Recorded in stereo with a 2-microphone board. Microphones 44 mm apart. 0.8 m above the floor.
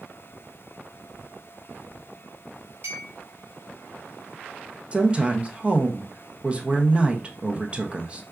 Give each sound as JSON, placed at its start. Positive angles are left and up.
{"t": 2.8, "sound": "a clink", "side_deg": -70, "distance_m": 1.4}
{"t": 4.9, "sound": "a woman speaking", "side_deg": -25, "distance_m": 0.6}